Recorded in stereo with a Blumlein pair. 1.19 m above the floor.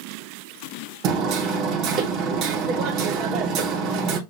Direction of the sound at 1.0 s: 35° right.